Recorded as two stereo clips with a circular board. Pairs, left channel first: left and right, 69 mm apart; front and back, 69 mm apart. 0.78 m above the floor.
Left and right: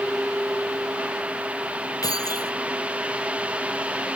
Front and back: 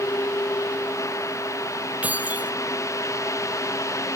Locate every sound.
2.0 s keys jangling: 115° left